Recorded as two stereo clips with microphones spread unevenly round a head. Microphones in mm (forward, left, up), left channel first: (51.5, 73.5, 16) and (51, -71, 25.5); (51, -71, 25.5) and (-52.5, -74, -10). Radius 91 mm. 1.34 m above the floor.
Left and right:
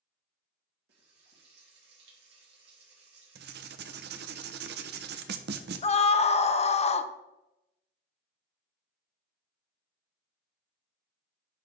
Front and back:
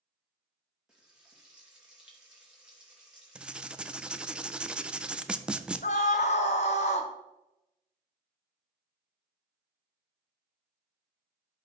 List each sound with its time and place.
0.9 s frying: 95° right, 2.5 m
3.4 s writing: 90° right, 0.6 m
5.8 s a scream: 40° left, 0.8 m